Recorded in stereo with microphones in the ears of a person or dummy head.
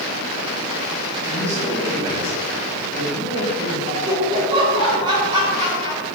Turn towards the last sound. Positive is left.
turn(degrees=-25)  # may be behind; listen again after turning